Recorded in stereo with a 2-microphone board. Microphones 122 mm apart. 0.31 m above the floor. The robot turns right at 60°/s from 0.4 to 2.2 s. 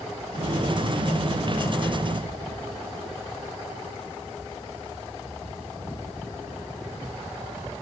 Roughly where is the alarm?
I don't hear an alarm.